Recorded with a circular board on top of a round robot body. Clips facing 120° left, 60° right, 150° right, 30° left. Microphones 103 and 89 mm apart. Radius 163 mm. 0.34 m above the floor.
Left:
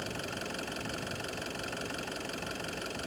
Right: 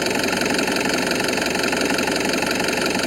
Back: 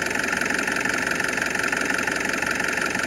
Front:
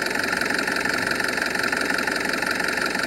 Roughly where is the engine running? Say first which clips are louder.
Right 18 dB, front 1 dB; ahead right.